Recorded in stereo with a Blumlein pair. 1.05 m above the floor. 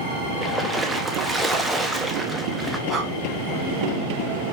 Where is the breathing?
10° right, 1.3 m.